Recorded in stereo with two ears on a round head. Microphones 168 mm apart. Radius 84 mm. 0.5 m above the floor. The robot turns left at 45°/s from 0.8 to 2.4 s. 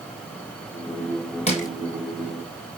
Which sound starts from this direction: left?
Crushing, at 1.5 s.